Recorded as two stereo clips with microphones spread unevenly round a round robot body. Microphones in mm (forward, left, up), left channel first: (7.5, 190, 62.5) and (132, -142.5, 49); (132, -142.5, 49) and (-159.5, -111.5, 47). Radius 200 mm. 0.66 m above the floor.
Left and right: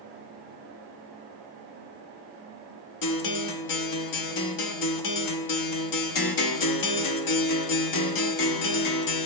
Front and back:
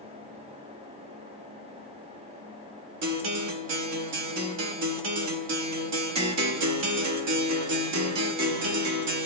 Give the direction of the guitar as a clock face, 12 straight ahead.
7 o'clock.